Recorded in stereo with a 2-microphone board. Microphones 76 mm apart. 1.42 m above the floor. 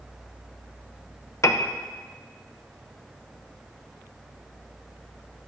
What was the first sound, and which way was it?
A piano, 40° left (ahead or behind).